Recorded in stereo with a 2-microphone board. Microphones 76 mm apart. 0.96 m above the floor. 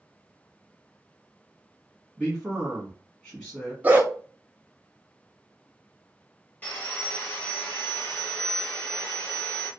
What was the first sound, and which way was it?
A man speaking, 10° left (ahead or behind).